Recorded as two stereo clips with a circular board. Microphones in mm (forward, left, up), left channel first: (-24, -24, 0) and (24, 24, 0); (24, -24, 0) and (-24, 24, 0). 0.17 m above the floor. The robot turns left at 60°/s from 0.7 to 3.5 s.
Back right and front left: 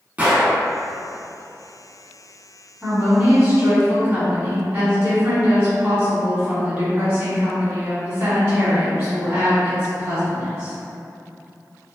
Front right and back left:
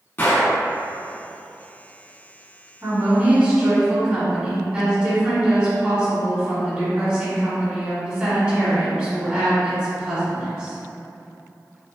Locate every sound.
0.2 s a gunshot: 5° right, 0.8 m
2.8 s a woman speaking: 120° left, 1.2 m; by 10.7 s 80° left, 1.2 m